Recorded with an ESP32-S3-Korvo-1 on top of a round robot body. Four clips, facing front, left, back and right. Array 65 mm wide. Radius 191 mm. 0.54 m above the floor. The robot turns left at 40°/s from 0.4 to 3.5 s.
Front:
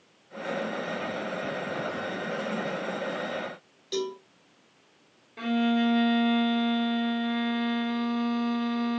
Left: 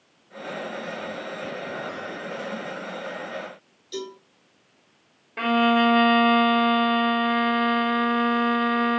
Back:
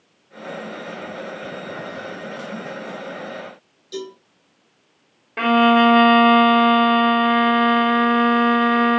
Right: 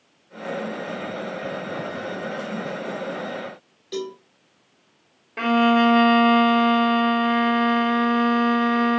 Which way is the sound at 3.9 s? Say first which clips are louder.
Right 4 dB, front 1 dB; 65° right.